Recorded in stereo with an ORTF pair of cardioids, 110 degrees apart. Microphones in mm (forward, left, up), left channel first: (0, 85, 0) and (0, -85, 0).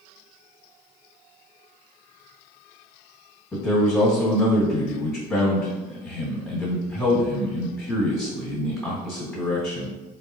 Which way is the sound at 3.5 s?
10° left.